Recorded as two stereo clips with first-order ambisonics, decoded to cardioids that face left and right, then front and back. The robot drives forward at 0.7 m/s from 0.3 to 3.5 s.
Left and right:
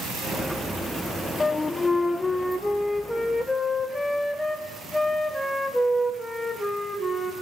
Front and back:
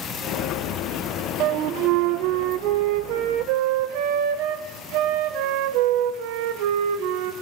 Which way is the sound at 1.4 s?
165° left.